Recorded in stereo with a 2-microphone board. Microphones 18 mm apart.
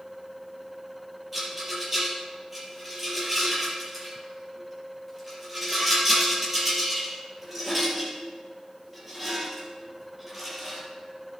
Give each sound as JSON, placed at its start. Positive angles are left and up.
{"t": 1.3, "sound": "a rattle", "side_deg": -15, "distance_m": 5.0}